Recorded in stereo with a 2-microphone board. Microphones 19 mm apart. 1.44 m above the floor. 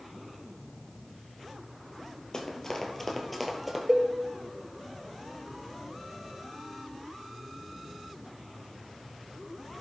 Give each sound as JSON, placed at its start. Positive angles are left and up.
{"t": 2.3, "sound": "running footsteps", "side_deg": 40, "distance_m": 1.9}
{"t": 3.9, "sound": "a cowbell", "side_deg": -25, "distance_m": 0.6}